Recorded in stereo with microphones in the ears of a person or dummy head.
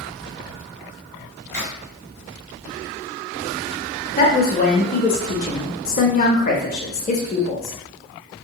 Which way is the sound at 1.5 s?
20° right (ahead or behind).